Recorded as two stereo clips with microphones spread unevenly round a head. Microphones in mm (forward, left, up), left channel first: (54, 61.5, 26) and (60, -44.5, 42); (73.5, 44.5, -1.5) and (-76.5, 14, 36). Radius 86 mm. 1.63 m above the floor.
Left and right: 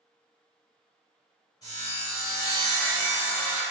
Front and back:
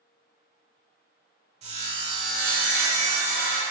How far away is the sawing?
About 0.7 m.